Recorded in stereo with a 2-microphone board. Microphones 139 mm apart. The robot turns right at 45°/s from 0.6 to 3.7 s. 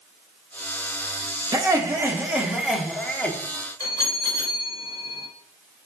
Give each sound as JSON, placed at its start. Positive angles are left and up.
{"t": 1.5, "sound": "laughter", "side_deg": -25, "distance_m": 0.9}
{"t": 3.8, "sound": "a bell", "side_deg": 25, "distance_m": 2.5}